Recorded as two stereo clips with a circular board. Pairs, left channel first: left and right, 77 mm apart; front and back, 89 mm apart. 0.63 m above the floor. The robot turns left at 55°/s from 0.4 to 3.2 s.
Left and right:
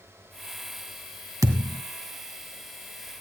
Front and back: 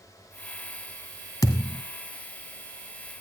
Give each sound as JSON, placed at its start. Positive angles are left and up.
{"t": 1.4, "sound": "a thud", "azimuth_deg": -45, "distance_m": 1.8}